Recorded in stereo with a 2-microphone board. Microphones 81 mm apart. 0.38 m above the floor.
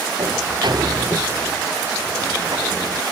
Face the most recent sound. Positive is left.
turn(degrees=-60)  # may be behind; listen again after turning